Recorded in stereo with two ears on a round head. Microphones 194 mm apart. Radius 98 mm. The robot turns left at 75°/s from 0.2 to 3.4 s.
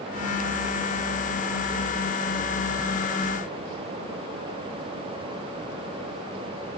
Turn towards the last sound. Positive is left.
No sound to turn to.